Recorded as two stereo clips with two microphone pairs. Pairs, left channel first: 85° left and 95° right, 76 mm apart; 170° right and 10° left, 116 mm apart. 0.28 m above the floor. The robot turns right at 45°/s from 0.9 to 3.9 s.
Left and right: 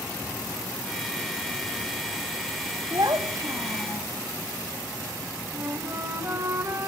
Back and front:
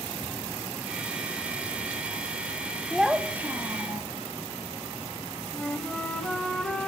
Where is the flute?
95° right, 1.7 m.